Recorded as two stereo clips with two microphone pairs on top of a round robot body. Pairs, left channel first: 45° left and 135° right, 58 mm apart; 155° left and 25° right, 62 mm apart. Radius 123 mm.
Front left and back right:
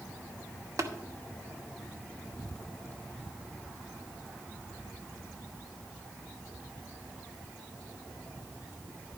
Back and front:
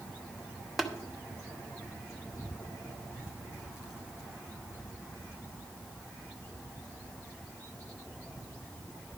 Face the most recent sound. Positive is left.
turn(degrees=-120)